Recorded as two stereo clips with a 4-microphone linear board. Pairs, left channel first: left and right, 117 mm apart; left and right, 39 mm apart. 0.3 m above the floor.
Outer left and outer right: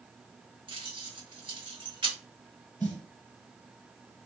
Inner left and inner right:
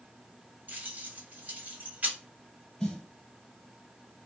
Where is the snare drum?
15° left (ahead or behind), 1.1 m.